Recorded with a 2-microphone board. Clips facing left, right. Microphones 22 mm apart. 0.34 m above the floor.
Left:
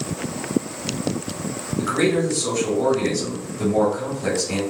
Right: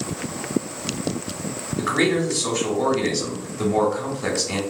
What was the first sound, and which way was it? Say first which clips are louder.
A man speaking: even; 25° right (ahead or behind).